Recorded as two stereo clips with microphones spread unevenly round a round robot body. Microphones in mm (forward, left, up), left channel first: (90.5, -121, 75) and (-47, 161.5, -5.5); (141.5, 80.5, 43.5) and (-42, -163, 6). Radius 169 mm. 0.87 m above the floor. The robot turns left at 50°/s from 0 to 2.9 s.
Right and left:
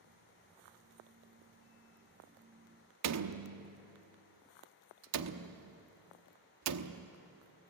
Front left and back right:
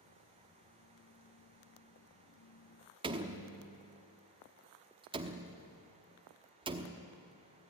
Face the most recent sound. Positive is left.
turn(degrees=155)